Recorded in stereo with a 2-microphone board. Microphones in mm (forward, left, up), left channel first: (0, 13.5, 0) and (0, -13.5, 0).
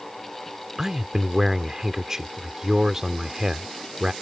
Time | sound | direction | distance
0.8 | a man speaking | 20° right (ahead or behind) | ?